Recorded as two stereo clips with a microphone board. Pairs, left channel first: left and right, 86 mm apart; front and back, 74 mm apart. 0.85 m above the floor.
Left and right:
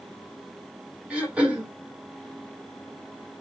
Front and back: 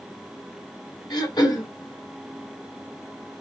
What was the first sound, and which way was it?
Throat clearing, 15° right.